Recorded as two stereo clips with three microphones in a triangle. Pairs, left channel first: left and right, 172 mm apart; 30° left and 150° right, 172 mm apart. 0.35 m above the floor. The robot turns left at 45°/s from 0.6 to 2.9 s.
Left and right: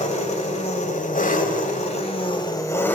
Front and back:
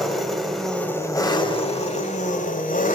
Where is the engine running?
120° left, 1.7 m; by 3.0 s 15° left, 1.7 m.